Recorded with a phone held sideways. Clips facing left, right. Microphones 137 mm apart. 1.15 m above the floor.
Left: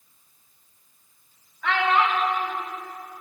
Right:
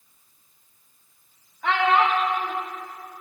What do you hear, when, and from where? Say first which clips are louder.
1.6 s a child speaking: right 2 dB; 25° right (ahead or behind), 1.2 m